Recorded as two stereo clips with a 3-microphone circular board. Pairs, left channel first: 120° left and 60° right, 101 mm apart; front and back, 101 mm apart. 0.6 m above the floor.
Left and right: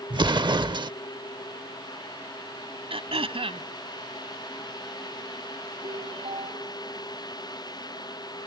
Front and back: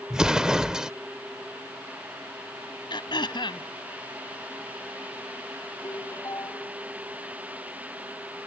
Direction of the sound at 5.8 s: 55° right.